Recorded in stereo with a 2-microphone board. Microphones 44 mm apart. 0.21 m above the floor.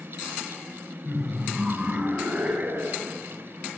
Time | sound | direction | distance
1.1 | laughter | 10° right (ahead or behind) | 2.0 m